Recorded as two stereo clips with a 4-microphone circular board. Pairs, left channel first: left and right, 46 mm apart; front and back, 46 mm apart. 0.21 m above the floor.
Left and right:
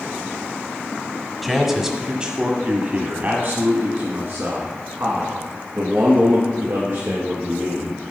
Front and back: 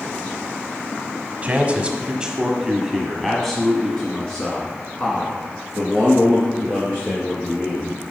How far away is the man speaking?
About 1.1 m.